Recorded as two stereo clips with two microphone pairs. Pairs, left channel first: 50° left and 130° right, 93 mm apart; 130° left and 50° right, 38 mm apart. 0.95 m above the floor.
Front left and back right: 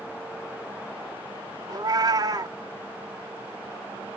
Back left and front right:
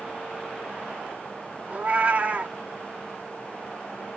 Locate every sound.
1.7 s a cat meowing: 100° right, 0.6 m